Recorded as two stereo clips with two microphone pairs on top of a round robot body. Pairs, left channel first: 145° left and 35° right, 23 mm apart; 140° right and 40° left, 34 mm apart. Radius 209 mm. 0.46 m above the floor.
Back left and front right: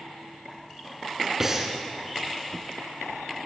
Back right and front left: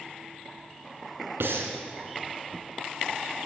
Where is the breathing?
40° left, 2.5 m.